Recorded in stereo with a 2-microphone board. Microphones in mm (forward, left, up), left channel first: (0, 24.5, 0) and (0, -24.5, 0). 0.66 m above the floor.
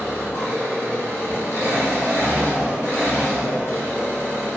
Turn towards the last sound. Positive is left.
turn(degrees=60)  # may be behind; listen again after turning